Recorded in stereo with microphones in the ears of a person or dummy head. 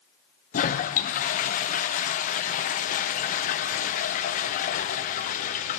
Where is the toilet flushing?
35° left (ahead or behind), 0.6 m.